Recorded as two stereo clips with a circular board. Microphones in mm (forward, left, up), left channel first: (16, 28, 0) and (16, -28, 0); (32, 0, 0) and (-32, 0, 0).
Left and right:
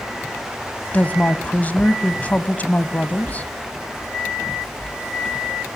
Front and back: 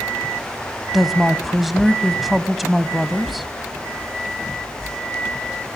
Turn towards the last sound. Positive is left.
turn(degrees=90)